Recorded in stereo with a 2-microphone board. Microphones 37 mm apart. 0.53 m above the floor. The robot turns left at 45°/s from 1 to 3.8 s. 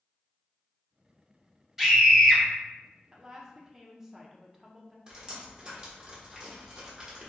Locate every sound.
1.8 s a scream: 10° right (ahead or behind), 1.2 m; by 2.4 s 10° left (ahead or behind), 1.2 m
3.1 s a woman speaking: 20° right (ahead or behind), 0.6 m; by 5.0 s 10° right (ahead or behind), 0.6 m
5.1 s dripping: 25° right (ahead or behind), 1.1 m